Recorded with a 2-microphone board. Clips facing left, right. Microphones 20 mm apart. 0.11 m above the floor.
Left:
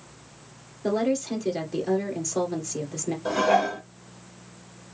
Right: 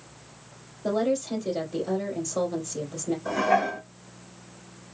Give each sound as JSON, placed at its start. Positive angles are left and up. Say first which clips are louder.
{"t": 0.8, "sound": "a woman speaking", "louder": "left 1 dB", "side_deg": 45, "distance_m": 2.0}
{"t": 3.2, "sound": "dishes clattering", "louder": "left 2 dB", "side_deg": 65, "distance_m": 2.0}